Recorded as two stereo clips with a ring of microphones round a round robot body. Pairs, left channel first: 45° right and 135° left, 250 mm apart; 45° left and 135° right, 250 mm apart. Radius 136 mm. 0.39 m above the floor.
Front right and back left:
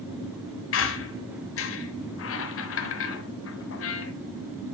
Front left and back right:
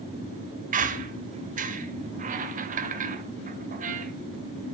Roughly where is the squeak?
Right.